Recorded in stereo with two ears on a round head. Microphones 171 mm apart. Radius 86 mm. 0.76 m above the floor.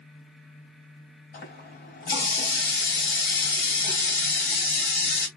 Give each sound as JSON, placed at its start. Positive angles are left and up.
{"t": 1.3, "sound": "a running tap", "side_deg": 45, "distance_m": 3.5}